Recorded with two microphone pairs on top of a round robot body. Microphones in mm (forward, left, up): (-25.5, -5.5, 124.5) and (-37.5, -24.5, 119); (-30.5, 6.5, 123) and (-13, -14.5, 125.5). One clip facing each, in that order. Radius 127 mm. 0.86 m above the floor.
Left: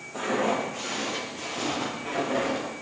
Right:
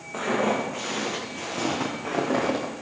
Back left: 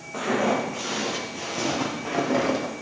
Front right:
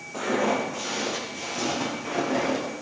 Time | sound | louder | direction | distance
0.1 | footsteps | right 2 dB, back left 1 dB | 155° right | 5 m